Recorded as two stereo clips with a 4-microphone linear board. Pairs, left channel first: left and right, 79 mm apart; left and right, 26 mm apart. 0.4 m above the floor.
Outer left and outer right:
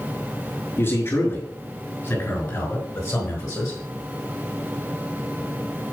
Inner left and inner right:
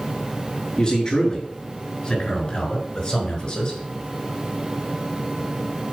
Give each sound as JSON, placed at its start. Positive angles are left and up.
{"t": 0.8, "sound": "a man speaking", "side_deg": 35, "distance_m": 6.0}